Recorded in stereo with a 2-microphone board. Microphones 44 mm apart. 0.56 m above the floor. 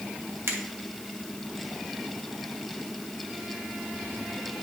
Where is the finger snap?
70° right (ahead or behind), 1.7 m.